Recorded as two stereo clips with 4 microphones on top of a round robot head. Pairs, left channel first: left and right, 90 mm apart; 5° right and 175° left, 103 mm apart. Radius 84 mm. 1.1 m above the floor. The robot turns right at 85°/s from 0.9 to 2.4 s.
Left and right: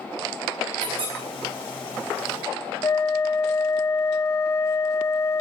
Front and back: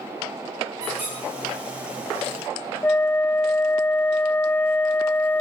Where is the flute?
55° left, 0.6 m.